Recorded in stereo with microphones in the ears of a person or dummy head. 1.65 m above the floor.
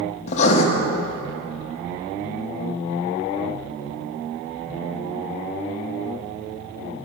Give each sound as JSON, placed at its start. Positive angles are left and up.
{"t": 0.3, "sound": "writing", "side_deg": 40, "distance_m": 1.4}